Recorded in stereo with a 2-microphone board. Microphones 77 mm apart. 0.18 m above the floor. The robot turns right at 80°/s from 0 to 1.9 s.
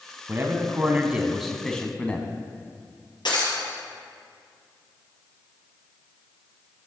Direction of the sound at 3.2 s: 75° left (ahead or behind).